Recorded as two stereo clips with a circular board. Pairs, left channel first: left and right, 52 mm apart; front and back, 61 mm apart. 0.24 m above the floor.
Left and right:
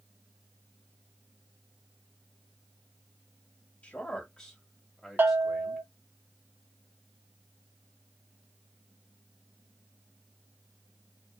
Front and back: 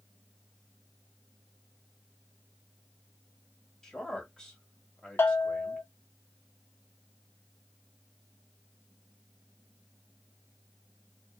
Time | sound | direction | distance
3.8 | a man speaking | 70° left | 1.6 m
5.2 | a bell | 40° right | 0.7 m